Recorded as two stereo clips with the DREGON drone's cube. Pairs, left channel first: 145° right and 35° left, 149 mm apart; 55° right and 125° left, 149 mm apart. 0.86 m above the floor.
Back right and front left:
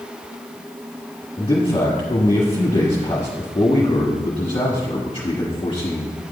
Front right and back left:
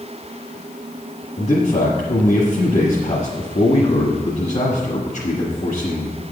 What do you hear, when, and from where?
1.4 s a man speaking: 90° right, 1.3 m